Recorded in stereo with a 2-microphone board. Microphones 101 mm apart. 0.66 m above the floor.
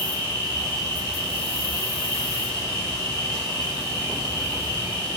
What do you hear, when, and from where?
0.0 s an insect: 25° left (ahead or behind), 1.4 m